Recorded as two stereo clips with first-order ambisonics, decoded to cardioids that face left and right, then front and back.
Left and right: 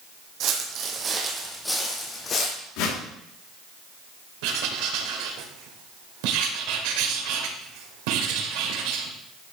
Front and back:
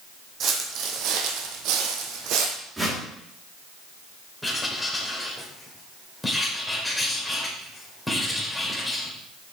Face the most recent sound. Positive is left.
turn(degrees=-90)